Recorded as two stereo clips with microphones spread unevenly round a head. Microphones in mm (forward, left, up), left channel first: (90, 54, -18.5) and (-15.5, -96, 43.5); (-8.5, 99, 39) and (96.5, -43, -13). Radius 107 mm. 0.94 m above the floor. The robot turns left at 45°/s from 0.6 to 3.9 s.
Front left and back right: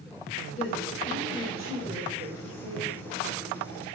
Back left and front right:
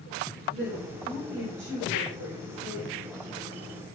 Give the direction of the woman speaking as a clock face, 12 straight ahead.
12 o'clock.